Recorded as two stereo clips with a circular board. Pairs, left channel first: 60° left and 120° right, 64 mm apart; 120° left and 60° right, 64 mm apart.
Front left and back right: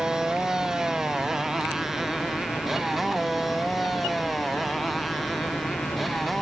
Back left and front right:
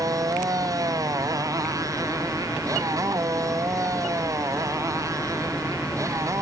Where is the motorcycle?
40° right; by 6.4 s 30° right.